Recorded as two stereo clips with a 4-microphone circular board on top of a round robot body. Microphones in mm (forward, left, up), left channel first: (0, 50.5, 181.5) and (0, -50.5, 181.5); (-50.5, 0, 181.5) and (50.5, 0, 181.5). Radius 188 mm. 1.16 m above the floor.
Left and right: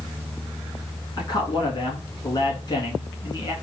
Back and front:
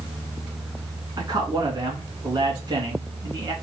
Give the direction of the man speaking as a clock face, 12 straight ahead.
11 o'clock.